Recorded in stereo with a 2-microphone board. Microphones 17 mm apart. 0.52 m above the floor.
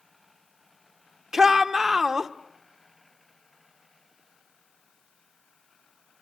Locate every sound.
1.3 s a shout: 25° right (ahead or behind), 1.3 m